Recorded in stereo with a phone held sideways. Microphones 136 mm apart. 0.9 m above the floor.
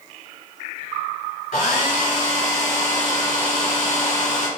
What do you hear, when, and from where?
1.5 s a hair dryer: 60° left (ahead or behind), 1.8 m